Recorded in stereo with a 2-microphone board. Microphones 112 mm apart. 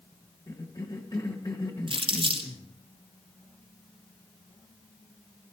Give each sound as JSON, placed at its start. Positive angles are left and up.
{"t": 0.5, "sound": "a cough", "side_deg": 35, "distance_m": 1.4}
{"t": 1.9, "sound": "crumpling", "side_deg": -50, "distance_m": 4.0}